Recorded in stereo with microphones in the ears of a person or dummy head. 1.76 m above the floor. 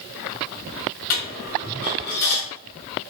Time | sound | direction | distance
1.1 | a dropped coin | 40° left (ahead or behind) | 1.3 m